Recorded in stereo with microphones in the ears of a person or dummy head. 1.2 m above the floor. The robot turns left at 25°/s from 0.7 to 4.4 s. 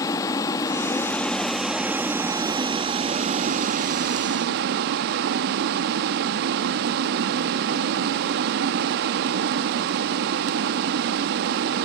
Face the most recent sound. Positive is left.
turn(degrees=-70)